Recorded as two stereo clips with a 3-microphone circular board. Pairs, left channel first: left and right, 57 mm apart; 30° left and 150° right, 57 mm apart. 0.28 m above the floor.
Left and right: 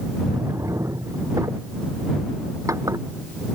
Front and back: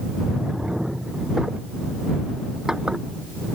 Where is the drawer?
70° right.